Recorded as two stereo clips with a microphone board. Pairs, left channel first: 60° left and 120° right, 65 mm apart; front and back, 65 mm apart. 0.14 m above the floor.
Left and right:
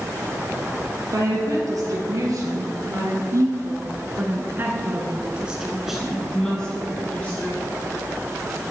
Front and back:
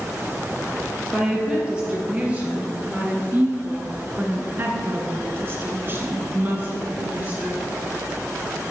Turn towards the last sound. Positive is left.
turn(degrees=120)